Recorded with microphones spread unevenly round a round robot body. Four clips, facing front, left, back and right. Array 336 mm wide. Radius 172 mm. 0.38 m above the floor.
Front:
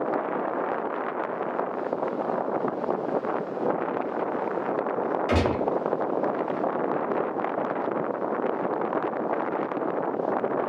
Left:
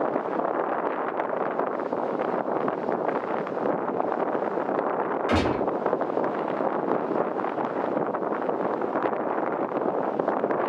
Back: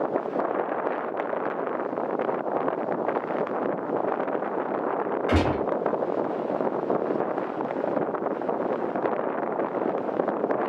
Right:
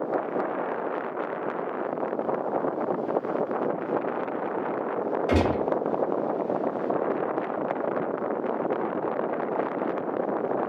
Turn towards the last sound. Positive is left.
turn(degrees=-65)